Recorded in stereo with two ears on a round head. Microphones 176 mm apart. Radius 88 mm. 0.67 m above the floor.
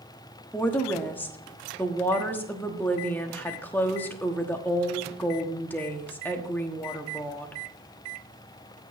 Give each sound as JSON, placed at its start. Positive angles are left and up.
{"t": 0.5, "sound": "a woman speaking", "side_deg": 10, "distance_m": 1.2}